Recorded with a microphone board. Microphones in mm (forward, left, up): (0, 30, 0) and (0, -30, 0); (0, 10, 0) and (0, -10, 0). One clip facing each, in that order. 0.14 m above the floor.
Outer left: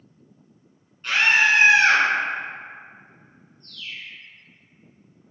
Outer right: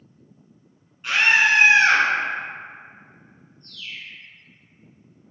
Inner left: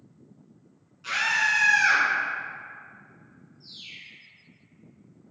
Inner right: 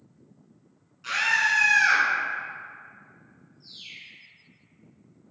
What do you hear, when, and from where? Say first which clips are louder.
1.0 s a scream: outer right 1 dB, inner right 1 dB; 10° right (ahead or behind), 1.3 m
3.6 s a bird: even, even; 5° right (ahead or behind), 1.5 m